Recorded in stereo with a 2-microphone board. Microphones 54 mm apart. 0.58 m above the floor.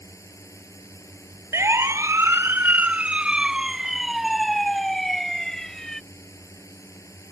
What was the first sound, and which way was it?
A drone, 70° left (ahead or behind).